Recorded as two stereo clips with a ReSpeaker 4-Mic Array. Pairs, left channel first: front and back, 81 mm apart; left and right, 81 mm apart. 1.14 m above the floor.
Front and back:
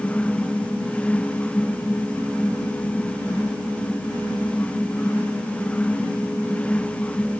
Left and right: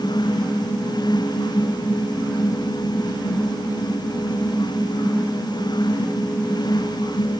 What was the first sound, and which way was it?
Only background noise.